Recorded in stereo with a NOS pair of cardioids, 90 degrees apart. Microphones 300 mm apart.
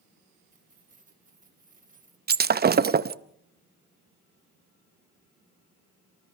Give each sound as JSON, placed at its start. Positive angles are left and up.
{"t": 0.5, "sound": "keys jangling", "azimuth_deg": -25, "distance_m": 3.5}
{"t": 2.3, "sound": "breaking glass", "azimuth_deg": -30, "distance_m": 0.8}